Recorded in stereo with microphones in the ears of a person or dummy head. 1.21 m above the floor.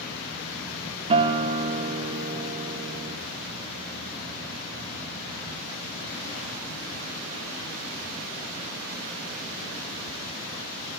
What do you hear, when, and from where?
1.1 s a guitar: 30° right (ahead or behind), 0.9 m